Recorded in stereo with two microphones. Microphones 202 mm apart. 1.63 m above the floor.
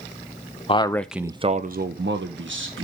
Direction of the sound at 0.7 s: 30° left (ahead or behind).